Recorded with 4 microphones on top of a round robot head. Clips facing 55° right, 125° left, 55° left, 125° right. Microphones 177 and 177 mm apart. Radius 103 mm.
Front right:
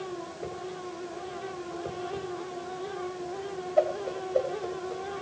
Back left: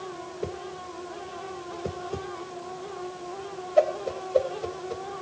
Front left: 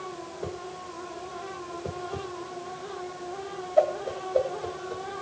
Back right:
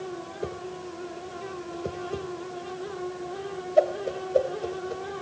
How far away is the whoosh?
About 1.9 m.